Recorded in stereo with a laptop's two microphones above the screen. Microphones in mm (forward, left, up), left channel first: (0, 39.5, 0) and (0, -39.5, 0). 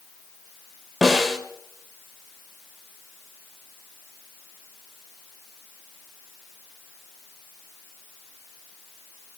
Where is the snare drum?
Centre (ahead or behind), 2.5 m.